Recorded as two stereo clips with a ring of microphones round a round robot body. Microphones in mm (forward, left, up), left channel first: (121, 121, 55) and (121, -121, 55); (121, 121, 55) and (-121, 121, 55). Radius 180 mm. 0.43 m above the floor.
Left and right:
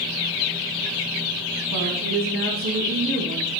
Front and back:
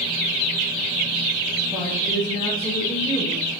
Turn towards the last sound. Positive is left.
turn(degrees=-55)